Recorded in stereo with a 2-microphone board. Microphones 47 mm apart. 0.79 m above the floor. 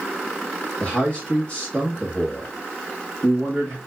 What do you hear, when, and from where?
0.8 s a man speaking: 20° left (ahead or behind), 1.2 m